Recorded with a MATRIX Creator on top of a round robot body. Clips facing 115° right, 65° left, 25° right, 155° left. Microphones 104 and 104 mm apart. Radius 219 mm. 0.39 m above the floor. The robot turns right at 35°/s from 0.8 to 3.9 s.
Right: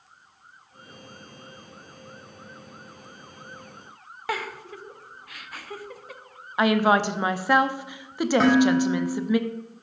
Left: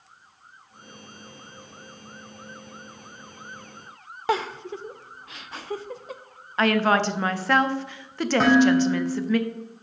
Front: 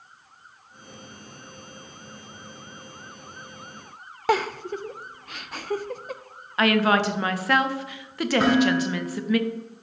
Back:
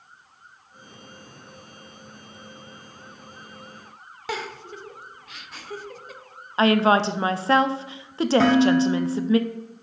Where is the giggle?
5° left, 0.5 m.